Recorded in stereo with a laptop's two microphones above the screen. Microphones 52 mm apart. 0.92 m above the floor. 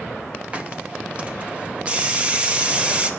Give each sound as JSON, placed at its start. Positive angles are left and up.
{"t": 0.5, "sound": "a hiss", "side_deg": -25, "distance_m": 0.6}